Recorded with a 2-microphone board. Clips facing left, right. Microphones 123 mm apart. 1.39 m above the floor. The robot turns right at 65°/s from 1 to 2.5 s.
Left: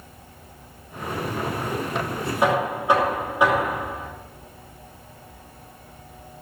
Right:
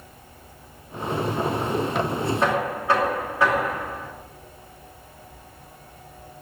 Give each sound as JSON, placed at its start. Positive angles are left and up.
{"t": 2.4, "sound": "knocking", "side_deg": 10, "distance_m": 3.0}